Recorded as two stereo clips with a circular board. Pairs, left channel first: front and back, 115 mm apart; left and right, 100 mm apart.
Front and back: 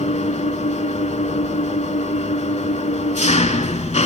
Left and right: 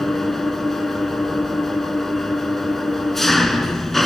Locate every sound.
0.0 s an engine running: straight ahead, 0.8 m